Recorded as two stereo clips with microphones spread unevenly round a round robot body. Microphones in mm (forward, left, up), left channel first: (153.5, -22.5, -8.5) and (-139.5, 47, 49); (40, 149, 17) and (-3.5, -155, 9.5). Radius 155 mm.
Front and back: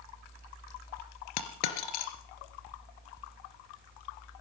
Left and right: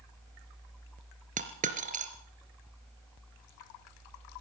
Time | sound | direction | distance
1.4 | a dropped coin | 30° right | 2.5 m